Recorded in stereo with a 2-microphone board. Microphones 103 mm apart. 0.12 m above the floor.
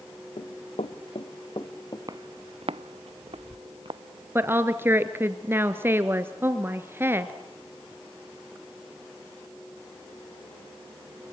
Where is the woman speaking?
25° right (ahead or behind), 1.6 m.